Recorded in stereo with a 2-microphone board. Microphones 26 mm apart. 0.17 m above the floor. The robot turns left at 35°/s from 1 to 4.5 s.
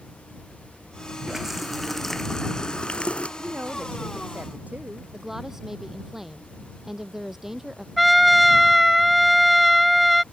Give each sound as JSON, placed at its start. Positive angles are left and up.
{"t": 1.3, "sound": "a running tap", "azimuth_deg": -165}
{"t": 3.4, "sound": "a woman speaking", "azimuth_deg": -65}
{"t": 5.1, "sound": "a woman speaking", "side_deg": -10}
{"t": 8.0, "sound": "a trumpet", "side_deg": 0}